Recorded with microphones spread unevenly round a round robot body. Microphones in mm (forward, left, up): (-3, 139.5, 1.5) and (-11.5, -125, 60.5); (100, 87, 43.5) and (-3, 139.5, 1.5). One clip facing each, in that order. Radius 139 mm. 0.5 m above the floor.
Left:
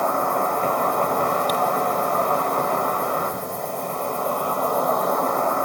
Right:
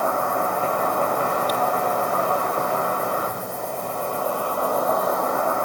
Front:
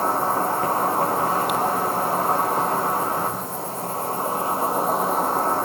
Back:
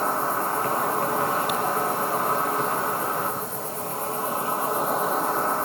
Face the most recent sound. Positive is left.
turn(degrees=-10)